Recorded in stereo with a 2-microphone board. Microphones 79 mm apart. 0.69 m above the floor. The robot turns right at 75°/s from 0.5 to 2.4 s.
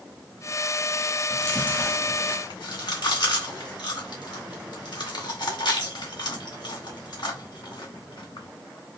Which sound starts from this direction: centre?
Chewing, at 1.3 s.